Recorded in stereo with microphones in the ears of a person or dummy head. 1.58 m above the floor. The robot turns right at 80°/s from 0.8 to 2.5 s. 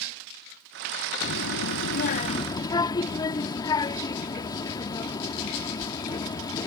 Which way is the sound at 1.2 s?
50° left.